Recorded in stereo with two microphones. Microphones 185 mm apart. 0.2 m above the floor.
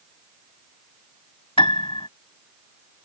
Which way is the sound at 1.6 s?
30° left (ahead or behind).